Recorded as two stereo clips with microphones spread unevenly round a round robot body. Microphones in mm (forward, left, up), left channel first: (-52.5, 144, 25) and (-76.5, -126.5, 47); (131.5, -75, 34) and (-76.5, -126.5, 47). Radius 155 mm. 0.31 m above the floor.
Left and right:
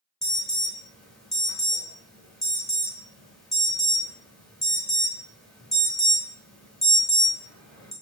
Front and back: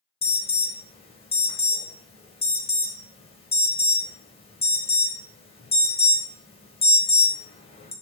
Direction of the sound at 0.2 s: 10° left.